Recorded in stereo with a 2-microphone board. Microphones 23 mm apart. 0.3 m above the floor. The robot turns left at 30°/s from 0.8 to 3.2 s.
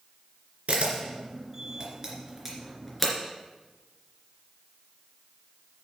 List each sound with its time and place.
0.7 s a camera shutter: 65° right (ahead or behind), 2.5 m; by 3.1 s centre (ahead or behind), 2.5 m